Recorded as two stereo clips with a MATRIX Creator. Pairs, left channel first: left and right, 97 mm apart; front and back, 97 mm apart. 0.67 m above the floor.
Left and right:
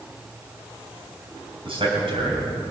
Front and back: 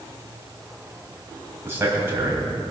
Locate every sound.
1.6 s a man speaking: 115° right, 4 m